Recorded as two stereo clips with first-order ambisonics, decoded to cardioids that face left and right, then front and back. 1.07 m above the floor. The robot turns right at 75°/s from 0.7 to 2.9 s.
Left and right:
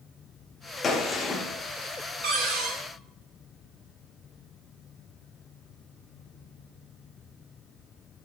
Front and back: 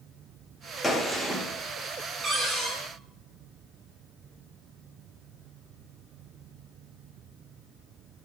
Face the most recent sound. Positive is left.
turn(degrees=-60)